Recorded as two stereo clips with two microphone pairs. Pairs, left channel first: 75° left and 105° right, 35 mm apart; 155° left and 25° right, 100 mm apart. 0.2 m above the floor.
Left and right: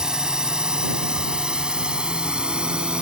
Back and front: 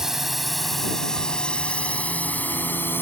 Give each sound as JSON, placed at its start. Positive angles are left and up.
{"t": 0.0, "sound": "a drone", "azimuth_deg": -105}